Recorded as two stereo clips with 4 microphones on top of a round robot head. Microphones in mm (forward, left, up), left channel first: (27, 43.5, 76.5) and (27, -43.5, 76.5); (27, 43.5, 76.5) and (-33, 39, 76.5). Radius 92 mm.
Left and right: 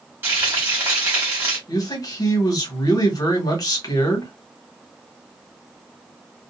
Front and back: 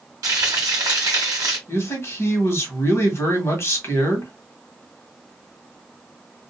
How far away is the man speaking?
About 1.4 m.